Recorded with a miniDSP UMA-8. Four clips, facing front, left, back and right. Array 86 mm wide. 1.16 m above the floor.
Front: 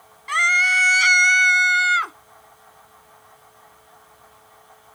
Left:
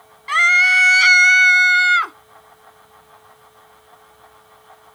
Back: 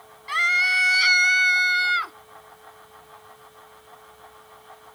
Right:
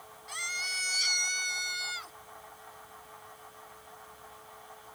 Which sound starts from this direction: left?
A scream, at 0.3 s.